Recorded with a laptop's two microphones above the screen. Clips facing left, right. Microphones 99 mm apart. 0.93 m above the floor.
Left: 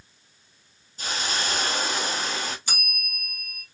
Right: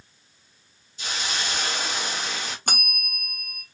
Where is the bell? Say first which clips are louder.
Right 5 dB; 60° right (ahead or behind), 0.7 m.